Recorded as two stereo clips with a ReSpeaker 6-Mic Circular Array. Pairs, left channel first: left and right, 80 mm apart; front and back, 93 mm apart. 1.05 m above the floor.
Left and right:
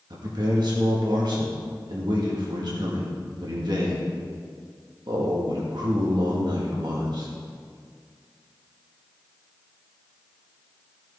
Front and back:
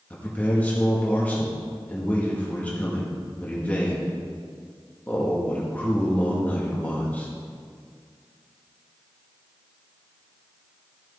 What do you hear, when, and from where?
0.1 s a man speaking: 70° right, 1.7 m